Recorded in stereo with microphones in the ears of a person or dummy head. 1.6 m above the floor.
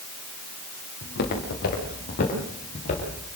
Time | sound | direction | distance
1.0 | footsteps | 55° left (ahead or behind) | 8 m